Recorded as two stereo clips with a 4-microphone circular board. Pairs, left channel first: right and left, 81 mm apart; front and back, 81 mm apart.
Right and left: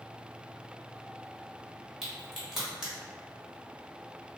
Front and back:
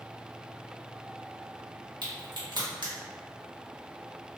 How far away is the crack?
About 1.0 m.